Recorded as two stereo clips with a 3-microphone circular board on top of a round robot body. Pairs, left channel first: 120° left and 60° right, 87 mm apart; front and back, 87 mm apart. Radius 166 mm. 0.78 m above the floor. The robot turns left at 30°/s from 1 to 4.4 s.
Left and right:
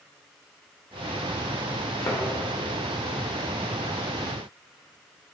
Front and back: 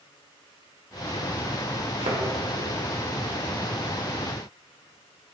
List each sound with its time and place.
2.0 s a thud: 175° left, 1.6 m; by 2.2 s 170° left, 1.6 m